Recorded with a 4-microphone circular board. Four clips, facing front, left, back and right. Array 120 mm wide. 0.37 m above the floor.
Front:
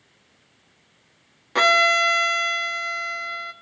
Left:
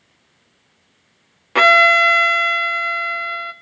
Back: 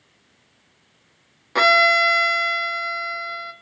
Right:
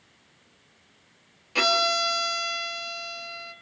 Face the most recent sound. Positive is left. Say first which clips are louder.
# left 12 dB, back 2 dB
turn(degrees=100)